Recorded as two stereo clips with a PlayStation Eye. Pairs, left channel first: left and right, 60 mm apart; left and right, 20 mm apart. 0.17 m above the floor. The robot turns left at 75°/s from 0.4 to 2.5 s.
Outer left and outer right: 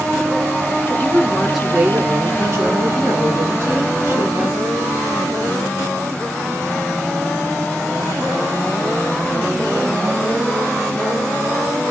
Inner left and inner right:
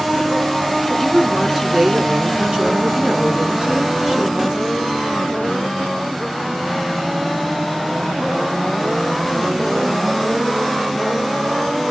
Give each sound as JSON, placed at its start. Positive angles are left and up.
{"t": 0.9, "sound": "a woman speaking", "azimuth_deg": 45, "distance_m": 1.6}